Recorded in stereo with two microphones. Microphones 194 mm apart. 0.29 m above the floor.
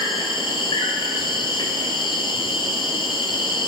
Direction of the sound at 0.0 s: 25° left (ahead or behind).